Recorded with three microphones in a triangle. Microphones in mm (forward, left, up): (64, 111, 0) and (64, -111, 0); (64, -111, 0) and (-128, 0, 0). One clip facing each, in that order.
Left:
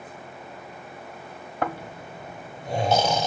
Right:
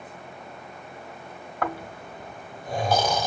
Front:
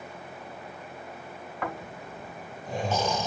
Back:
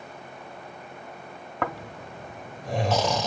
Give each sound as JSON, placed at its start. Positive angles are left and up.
{"t": 1.6, "sound": "snoring", "azimuth_deg": 155, "distance_m": 0.9}